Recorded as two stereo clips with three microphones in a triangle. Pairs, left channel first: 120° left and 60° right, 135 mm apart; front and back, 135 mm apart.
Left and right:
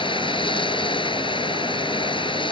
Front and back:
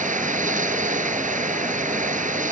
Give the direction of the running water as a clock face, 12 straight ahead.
6 o'clock.